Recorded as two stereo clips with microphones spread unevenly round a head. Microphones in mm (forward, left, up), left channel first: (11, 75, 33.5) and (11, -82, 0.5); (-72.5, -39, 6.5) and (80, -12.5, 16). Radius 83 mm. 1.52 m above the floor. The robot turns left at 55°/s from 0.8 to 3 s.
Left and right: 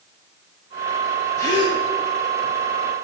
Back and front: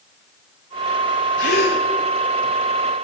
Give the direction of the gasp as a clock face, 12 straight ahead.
7 o'clock.